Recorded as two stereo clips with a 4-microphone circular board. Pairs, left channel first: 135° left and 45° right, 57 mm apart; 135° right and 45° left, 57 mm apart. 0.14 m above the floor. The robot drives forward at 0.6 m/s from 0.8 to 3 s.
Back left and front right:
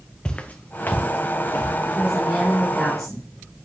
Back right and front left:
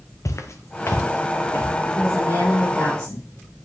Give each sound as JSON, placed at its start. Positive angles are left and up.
{"t": 0.2, "sound": "footsteps", "azimuth_deg": -155, "distance_m": 1.0}
{"t": 1.9, "sound": "a woman speaking", "azimuth_deg": -140, "distance_m": 3.5}